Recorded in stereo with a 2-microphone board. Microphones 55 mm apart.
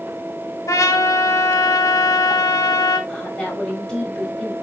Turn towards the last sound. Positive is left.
turn(degrees=15)  # may be behind; listen again after turning